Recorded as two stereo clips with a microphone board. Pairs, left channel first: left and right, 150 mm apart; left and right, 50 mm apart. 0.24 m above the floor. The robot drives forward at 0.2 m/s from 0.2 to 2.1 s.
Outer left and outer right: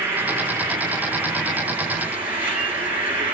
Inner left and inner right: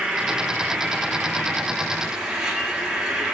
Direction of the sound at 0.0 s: 15° right (ahead or behind).